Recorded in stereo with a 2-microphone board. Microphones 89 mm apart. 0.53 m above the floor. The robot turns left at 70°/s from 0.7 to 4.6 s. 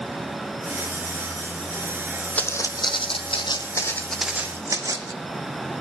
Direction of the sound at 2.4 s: 15° left (ahead or behind).